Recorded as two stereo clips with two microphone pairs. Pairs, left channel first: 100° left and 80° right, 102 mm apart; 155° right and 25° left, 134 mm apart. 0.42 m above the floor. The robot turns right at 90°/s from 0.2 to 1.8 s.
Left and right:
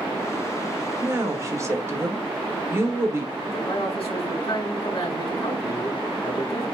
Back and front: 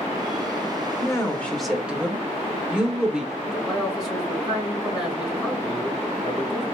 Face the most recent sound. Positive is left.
turn(degrees=115)